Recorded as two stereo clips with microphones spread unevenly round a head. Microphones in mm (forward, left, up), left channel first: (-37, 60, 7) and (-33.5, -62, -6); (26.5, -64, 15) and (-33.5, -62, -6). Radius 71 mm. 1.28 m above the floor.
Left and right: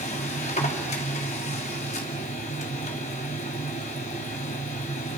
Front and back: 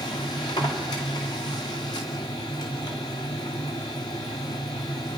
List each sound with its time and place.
0.0 s a machine running: 45° left, 2 m